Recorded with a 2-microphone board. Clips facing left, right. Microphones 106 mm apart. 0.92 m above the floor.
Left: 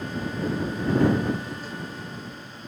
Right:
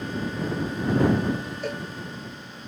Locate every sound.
1.6 s a cowbell: 70° right (ahead or behind)